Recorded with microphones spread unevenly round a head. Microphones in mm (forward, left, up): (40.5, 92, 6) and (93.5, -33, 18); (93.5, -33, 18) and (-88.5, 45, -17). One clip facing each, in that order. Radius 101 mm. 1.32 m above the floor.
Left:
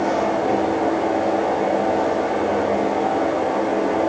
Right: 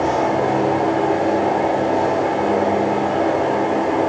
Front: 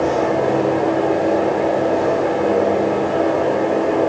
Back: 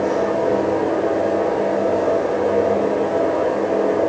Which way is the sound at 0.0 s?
40° right.